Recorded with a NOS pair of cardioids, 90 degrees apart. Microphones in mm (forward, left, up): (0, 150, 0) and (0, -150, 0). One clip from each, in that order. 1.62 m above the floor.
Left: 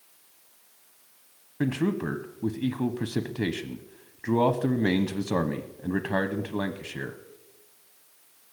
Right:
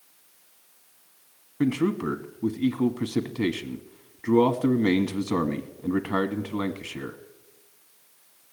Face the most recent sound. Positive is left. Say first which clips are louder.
# right 3 dB
turn(degrees=5)